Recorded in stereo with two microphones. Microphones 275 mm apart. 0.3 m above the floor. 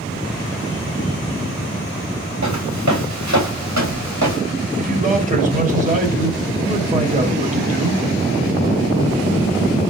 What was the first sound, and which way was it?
Footsteps, 85° right.